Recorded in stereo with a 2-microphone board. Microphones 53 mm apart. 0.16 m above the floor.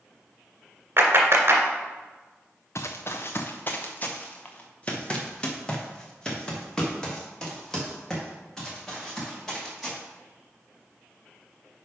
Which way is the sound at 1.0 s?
50° right (ahead or behind).